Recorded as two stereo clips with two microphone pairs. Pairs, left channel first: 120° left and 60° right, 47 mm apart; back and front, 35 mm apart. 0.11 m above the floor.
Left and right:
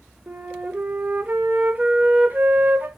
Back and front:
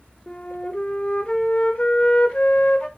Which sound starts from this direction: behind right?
A flute, at 0.3 s.